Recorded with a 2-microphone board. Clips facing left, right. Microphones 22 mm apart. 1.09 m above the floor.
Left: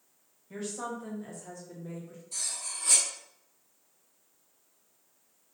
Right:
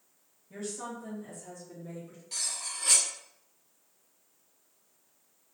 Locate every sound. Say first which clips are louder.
0.5 s a woman speaking: left 2 dB; 55° left (ahead or behind), 1.2 m; by 2.2 s 15° right (ahead or behind), 0.6 m
2.3 s cutlery clinking: right 1 dB; 65° right (ahead or behind), 0.7 m